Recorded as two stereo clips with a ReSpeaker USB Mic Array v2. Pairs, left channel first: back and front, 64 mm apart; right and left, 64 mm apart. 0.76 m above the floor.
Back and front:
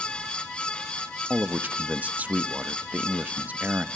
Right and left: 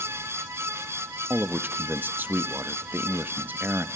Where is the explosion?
No explosion in this recording.